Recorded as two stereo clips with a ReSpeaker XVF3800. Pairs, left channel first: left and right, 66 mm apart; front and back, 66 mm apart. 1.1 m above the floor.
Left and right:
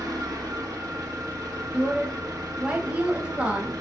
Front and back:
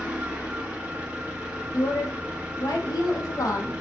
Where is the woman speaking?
20° right, 1.4 m.